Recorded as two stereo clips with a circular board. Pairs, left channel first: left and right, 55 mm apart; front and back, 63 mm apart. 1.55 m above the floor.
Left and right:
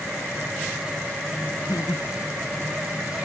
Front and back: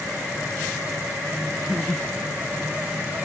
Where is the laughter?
90° left.